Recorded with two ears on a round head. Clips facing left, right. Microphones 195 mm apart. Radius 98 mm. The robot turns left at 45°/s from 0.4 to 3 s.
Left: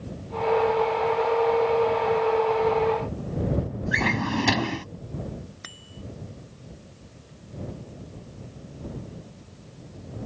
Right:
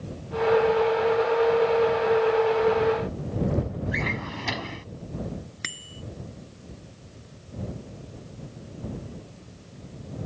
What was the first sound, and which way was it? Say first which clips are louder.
A drawer: left 6 dB; 70° left (ahead or behind).